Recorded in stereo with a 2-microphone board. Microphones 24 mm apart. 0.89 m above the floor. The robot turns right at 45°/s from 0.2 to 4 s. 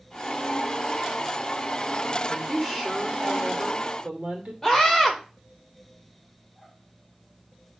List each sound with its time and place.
2.3 s a woman speaking: 160° left, 1.8 m; by 4.5 s 120° right, 1.8 m
4.6 s a scream: 5° left (ahead or behind), 3 m